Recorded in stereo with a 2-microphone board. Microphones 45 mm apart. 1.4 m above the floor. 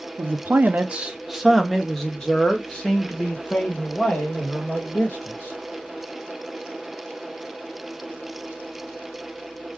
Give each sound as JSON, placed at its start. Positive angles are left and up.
{"t": 0.2, "sound": "a man speaking", "side_deg": -60, "distance_m": 0.6}